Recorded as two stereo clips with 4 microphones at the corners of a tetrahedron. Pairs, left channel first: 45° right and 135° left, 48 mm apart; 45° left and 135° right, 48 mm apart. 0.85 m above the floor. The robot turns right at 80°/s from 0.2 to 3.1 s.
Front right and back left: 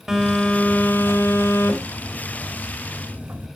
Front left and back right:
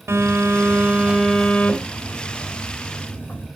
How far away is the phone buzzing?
About 3 m.